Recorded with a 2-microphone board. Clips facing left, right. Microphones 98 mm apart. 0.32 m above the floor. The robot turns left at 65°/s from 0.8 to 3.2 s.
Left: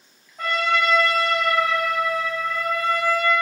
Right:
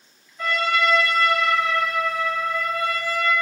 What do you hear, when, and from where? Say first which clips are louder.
0.4 s a trumpet: even; 75° left, 1.4 m; by 3.3 s 80° right, 1.4 m